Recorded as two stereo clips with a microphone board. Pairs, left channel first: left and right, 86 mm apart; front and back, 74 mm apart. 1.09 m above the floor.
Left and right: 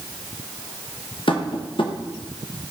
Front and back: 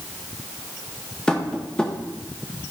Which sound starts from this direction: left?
Tapping, at 1.3 s.